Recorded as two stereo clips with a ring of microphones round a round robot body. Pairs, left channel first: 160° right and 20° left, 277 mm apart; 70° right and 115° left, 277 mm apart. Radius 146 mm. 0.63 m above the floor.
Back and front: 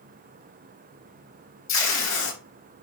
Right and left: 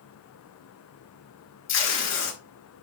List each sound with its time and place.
1.7 s tape being pulled: 115° right, 4 m